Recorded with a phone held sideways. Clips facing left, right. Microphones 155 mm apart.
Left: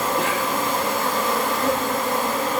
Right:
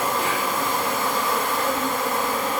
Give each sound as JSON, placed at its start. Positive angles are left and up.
{"t": 0.0, "sound": "an insect", "side_deg": 75, "distance_m": 2.0}